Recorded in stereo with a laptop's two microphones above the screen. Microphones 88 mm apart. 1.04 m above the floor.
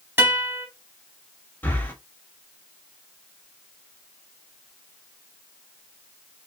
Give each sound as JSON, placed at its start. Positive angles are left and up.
{"t": 0.2, "sound": "a guitar", "side_deg": -25, "distance_m": 2.0}
{"t": 1.6, "sound": "breathing", "side_deg": 20, "distance_m": 1.7}